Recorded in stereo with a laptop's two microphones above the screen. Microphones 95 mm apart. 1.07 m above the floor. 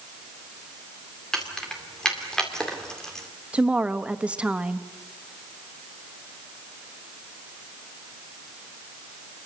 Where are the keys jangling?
5° left (ahead or behind), 2 m.